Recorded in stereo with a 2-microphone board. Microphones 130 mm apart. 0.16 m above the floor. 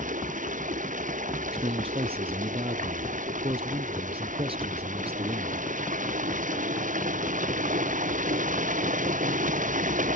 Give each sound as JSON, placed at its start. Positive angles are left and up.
{"t": 0.0, "sound": "running water", "side_deg": -75}
{"t": 1.5, "sound": "a man speaking", "side_deg": -45}